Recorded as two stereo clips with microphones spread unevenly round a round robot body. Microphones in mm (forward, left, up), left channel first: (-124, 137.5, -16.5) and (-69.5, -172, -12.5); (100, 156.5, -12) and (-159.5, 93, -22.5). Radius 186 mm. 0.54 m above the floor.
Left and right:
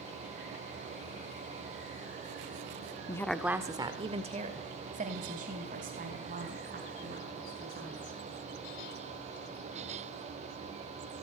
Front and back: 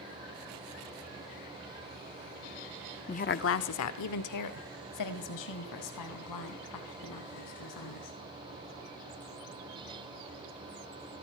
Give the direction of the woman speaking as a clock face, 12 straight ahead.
11 o'clock.